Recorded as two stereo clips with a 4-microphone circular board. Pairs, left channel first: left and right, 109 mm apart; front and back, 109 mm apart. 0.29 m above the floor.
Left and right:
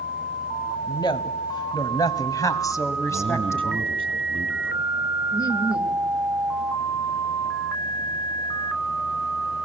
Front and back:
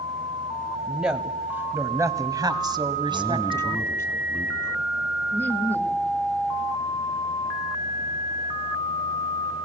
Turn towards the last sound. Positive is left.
turn(degrees=60)